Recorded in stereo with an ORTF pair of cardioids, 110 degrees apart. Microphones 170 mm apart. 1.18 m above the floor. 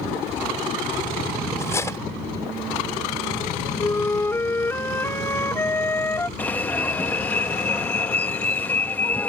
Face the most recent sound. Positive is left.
turn(degrees=10)